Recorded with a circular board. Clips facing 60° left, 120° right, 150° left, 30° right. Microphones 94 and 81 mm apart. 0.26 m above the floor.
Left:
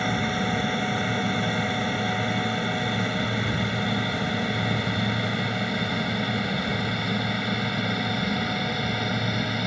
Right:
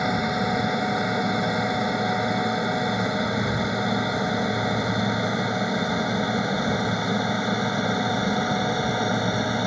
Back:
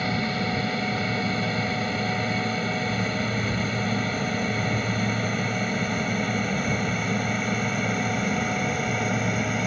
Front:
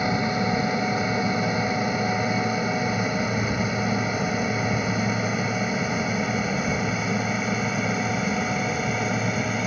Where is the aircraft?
70° right; by 9.7 s 115° right.